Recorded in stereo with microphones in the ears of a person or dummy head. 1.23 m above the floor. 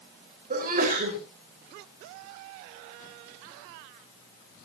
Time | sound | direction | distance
0.5 | a sneeze | 50° right (ahead or behind) | 4.5 m